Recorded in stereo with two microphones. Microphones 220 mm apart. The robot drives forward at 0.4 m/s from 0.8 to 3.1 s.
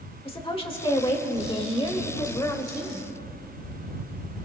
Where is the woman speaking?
25° left (ahead or behind), 1.7 m; by 3.1 s 15° left (ahead or behind), 2.5 m.